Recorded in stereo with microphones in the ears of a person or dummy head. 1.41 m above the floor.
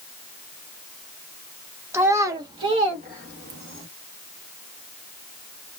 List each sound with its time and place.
1.9 s a child speaking: 15° right (ahead or behind), 0.9 m; by 3.9 s 45° right (ahead or behind), 1.1 m